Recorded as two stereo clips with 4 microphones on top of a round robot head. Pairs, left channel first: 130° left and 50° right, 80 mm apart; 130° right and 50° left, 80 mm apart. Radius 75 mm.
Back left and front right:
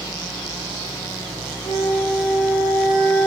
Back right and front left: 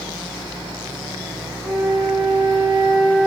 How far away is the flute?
About 2.5 m.